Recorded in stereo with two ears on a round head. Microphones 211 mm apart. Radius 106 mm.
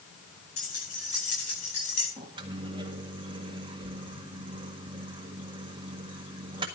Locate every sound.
0.6 s keys jangling: 70° left (ahead or behind), 9.5 m; by 2.1 s 65° left (ahead or behind), 10.5 m
2.2 s a microwave: 20° right (ahead or behind), 1.7 m